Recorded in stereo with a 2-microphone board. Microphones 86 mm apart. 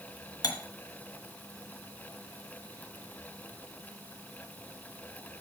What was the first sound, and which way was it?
Cutlery clinking, 50° left (ahead or behind).